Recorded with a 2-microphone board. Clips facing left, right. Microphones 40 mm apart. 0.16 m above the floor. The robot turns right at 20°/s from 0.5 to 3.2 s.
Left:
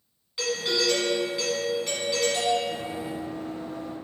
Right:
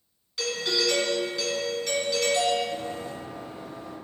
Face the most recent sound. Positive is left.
turn(degrees=45)  # may be behind; listen again after turning